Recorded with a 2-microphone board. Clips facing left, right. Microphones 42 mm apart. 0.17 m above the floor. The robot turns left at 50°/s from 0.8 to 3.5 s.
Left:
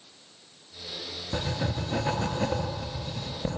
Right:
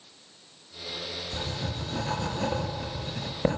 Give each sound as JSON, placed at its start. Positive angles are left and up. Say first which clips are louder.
{"t": 1.3, "sound": "writing", "louder": "left 6 dB", "azimuth_deg": 65, "distance_m": 2.5}